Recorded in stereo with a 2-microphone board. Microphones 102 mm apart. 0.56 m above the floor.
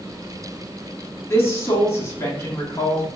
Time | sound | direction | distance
1.3 | a woman speaking | 25° left (ahead or behind) | 0.8 m